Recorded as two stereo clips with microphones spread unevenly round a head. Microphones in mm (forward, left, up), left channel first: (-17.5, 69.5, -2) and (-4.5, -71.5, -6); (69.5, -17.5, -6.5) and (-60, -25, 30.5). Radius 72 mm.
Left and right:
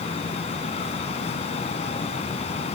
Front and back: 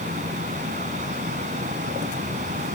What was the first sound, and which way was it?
A fan, 145° left.